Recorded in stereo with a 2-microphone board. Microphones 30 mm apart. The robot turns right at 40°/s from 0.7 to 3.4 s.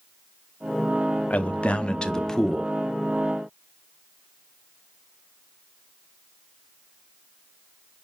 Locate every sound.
1.3 s a man speaking: 125° left, 0.5 m; by 2.7 s straight behind, 0.5 m